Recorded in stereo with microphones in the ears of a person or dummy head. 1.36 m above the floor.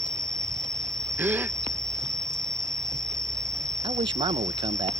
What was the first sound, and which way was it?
An insect, 20° right (ahead or behind).